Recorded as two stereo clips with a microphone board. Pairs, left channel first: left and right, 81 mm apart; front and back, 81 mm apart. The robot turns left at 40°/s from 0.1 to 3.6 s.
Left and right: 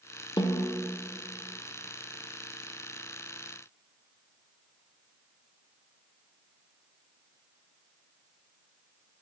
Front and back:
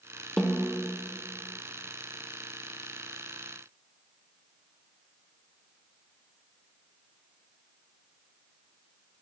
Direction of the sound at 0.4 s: 85° left.